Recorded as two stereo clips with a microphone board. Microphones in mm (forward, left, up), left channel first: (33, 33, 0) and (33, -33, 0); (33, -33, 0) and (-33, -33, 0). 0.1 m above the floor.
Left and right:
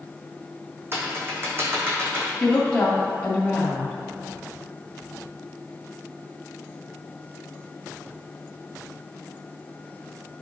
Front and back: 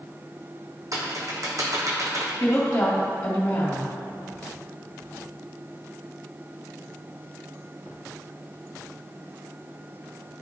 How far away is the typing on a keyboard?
About 1.7 m.